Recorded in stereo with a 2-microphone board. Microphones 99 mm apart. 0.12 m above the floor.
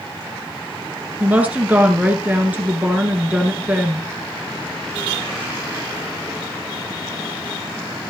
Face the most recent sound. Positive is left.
turn(degrees=-15)  # may be behind; listen again after turning